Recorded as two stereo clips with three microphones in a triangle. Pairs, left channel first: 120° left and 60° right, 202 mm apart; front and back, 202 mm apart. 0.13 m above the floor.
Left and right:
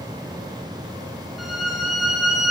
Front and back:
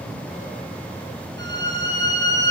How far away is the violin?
About 8 m.